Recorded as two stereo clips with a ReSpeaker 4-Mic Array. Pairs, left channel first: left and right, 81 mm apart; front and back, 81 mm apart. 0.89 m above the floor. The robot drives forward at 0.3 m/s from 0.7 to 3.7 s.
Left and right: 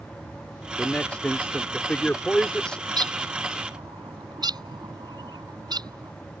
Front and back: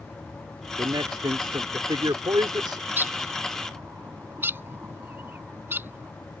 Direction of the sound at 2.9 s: 115° right.